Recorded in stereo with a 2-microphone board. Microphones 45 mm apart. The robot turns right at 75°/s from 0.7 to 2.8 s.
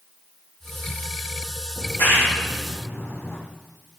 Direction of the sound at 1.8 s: 40° left (ahead or behind).